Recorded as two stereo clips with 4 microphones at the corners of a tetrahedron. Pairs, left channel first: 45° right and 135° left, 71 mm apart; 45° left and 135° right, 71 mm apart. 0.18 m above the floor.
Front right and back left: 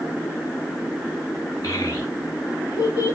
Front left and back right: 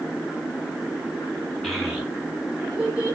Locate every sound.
1.6 s a child speaking: 40° right, 1.4 m; by 3.1 s 65° right, 2 m